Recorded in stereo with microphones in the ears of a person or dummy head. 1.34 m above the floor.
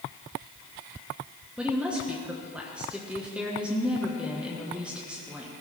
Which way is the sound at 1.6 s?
Centre (ahead or behind).